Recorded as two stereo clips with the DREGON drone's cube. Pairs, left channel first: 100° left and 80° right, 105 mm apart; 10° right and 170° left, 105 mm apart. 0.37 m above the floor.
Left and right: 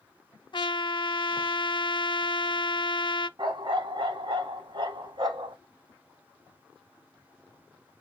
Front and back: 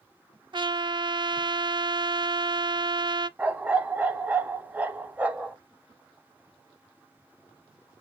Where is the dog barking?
115° right, 1.1 m.